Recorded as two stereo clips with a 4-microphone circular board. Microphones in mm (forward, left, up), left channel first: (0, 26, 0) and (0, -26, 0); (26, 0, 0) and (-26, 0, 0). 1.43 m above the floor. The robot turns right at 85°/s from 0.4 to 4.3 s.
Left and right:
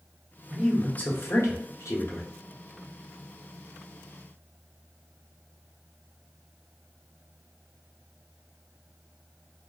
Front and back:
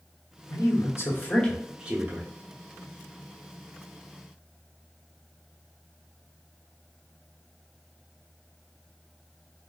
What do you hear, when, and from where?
0.5 s a man speaking: 10° right, 1.0 m; by 2.3 s 145° left, 1.0 m